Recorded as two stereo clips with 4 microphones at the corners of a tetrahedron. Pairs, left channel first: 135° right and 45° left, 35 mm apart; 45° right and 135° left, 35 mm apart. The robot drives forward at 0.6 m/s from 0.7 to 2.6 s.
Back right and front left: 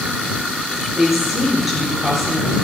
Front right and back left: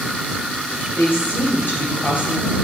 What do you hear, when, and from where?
0.9 s a woman speaking: 35° right, 3.5 m; by 2.5 s 50° right, 3 m